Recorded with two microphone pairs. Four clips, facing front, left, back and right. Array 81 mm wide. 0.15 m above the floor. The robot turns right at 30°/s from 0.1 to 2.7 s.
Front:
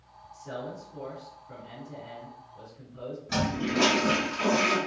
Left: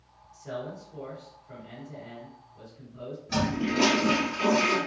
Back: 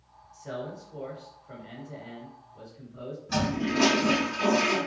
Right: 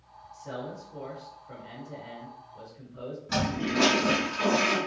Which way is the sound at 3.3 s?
95° right.